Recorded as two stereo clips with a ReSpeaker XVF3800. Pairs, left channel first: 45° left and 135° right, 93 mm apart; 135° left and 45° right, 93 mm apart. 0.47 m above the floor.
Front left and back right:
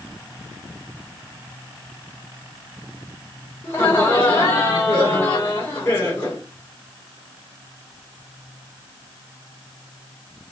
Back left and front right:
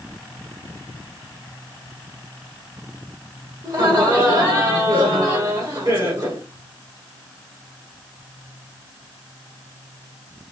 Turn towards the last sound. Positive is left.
turn(degrees=0)